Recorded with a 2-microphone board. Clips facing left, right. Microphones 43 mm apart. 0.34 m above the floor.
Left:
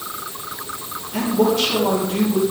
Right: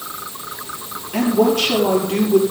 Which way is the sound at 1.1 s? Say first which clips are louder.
Right 2 dB; 65° right (ahead or behind).